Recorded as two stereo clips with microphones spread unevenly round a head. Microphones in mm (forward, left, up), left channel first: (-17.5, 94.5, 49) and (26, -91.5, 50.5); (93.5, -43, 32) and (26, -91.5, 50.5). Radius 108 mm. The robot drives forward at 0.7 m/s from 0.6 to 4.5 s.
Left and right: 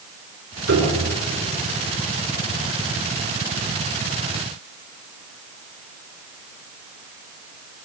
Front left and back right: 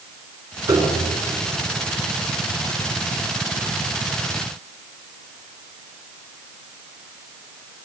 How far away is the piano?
About 7 m.